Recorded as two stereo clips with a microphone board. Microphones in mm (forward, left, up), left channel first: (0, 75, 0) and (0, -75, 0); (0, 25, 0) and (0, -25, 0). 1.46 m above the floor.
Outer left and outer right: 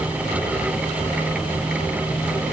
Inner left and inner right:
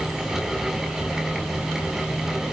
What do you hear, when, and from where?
Only background noise.